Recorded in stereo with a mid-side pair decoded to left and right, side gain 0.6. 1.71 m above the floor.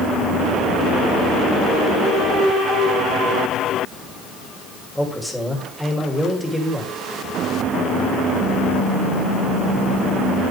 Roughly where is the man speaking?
Ahead.